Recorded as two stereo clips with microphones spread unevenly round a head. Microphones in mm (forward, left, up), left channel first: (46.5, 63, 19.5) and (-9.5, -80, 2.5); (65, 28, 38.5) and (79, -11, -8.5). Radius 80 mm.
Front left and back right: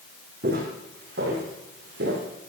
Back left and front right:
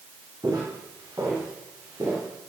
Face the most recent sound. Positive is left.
turn(degrees=-130)